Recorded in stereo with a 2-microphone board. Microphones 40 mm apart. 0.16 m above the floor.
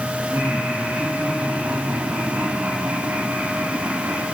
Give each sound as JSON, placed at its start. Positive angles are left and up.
{"t": 0.3, "sound": "laughter", "side_deg": -75, "distance_m": 8.0}